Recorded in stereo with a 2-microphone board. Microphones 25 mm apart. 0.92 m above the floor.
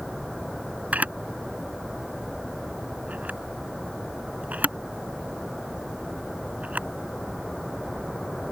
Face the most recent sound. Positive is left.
turn(degrees=-85)